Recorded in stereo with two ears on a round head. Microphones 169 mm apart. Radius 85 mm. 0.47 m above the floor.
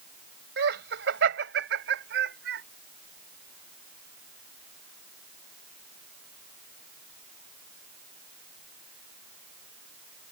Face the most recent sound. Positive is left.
turn(degrees=-55)  # may be behind; listen again after turning